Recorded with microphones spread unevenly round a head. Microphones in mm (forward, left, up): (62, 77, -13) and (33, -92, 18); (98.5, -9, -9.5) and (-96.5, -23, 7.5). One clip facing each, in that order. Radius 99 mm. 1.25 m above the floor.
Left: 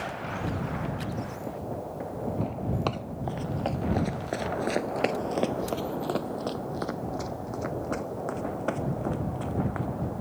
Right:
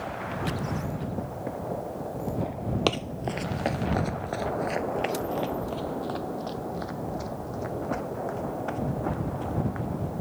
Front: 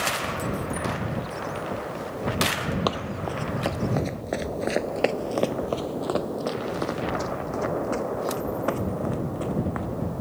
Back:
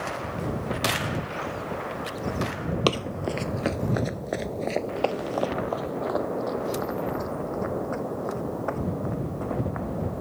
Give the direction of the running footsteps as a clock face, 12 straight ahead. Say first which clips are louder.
Right 3 dB, back 2 dB; 5 o'clock.